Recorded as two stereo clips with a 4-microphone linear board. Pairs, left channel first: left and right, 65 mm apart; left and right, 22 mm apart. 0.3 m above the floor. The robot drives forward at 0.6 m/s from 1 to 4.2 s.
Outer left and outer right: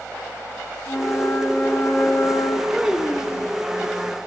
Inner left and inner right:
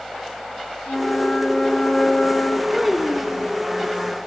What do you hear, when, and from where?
0.9 s a flute: 40° left (ahead or behind), 5.5 m; by 2.6 s 35° left (ahead or behind), 6 m
2.7 s a child speaking: 10° right (ahead or behind), 2.5 m